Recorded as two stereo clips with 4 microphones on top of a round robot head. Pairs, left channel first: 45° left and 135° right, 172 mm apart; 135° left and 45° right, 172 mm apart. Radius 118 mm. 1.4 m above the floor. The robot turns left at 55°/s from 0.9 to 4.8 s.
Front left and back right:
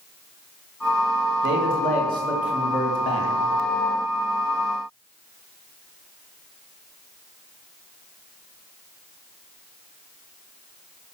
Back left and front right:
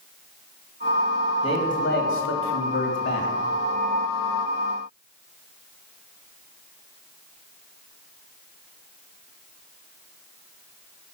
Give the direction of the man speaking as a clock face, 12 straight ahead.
5 o'clock.